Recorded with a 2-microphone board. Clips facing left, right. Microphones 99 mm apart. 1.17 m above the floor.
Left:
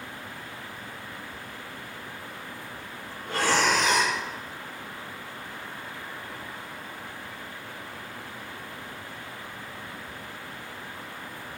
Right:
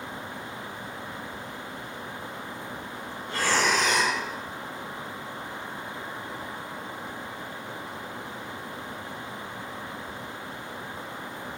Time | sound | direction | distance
3.3 | breathing | 65° left (ahead or behind) | 5.5 m